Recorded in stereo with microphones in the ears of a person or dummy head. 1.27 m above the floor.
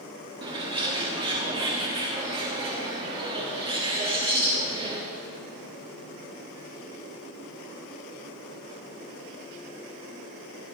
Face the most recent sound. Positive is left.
turn(degrees=-25)  # may be behind; listen again after turning